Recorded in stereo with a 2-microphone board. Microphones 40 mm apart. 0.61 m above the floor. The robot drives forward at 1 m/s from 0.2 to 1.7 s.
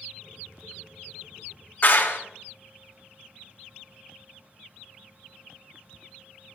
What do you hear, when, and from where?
1.8 s a clap: 50° left (ahead or behind), 1.3 m